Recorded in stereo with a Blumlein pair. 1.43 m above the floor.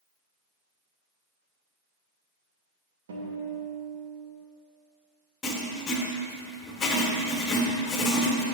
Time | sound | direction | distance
3.1 | a guitar | 60° right | 2 m
5.4 | writing | 20° left | 1.4 m